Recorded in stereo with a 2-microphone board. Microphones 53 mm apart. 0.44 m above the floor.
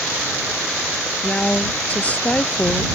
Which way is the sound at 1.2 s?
25° left (ahead or behind).